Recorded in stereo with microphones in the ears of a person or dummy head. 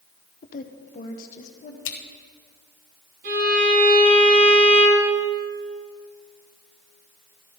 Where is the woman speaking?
50° left (ahead or behind), 0.9 m; by 1.8 s 45° left (ahead or behind), 2 m.